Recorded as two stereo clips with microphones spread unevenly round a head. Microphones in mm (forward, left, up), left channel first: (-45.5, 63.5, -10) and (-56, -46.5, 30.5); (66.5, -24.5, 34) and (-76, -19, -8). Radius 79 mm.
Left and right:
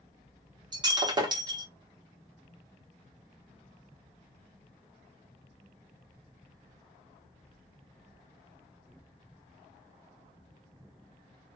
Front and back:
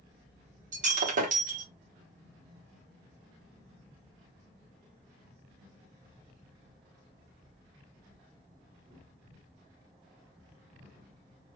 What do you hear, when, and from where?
0.7 s breaking glass: 145° right, 1.3 m